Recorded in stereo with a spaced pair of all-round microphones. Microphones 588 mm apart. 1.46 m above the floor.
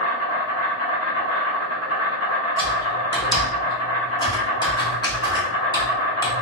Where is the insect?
25° left (ahead or behind), 1.2 m.